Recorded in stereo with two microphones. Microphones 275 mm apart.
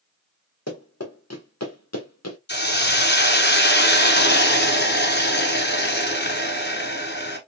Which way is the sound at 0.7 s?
70° left (ahead or behind).